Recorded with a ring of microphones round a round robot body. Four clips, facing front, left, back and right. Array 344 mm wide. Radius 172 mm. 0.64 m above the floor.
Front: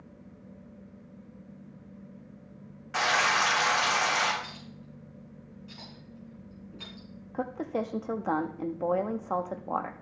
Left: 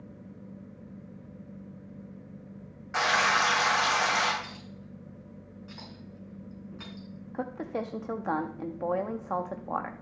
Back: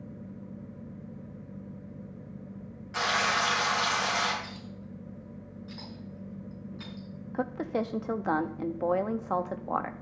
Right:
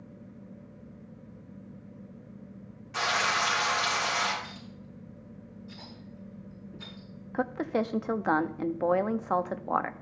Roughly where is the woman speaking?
Right.